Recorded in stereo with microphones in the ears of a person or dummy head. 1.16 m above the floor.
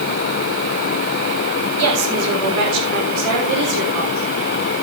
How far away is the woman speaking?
About 4 m.